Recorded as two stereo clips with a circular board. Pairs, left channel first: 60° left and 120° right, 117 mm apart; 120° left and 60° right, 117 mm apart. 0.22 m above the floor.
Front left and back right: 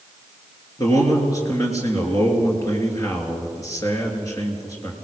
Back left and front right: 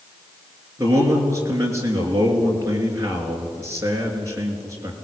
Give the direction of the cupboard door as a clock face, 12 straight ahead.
I don't hear a cupboard door.